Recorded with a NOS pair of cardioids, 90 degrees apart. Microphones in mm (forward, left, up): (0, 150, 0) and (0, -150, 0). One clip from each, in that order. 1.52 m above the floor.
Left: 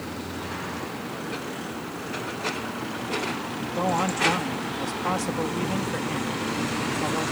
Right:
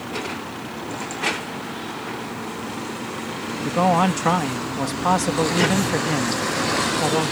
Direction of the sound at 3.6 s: 55° right.